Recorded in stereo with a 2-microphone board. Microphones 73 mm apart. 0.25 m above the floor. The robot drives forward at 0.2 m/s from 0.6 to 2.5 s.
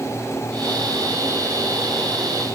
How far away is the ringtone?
No ringtone in this recording.